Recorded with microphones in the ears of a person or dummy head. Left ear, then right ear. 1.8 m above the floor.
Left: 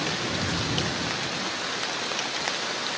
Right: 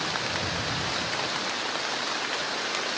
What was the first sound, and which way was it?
Only background noise.